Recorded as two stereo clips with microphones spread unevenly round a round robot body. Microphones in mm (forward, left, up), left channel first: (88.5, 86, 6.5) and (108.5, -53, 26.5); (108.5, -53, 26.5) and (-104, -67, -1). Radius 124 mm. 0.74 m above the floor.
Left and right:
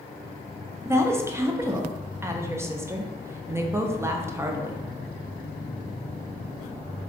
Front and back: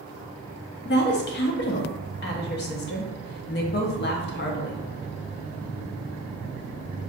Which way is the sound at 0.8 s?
5° right.